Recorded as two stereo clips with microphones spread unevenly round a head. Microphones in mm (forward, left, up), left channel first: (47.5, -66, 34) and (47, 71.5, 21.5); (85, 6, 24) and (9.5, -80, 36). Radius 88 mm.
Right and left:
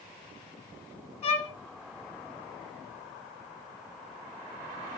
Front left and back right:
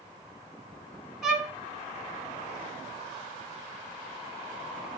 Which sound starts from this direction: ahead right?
A violin, at 1.2 s.